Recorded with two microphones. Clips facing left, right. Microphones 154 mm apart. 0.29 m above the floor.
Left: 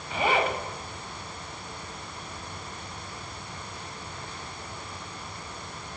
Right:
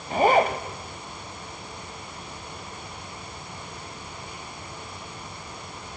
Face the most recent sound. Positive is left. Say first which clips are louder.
# right 6 dB
turn(degrees=-45)  # may be behind; listen again after turning